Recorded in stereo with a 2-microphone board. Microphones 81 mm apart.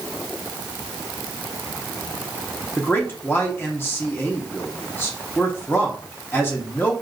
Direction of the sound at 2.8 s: 25° left (ahead or behind).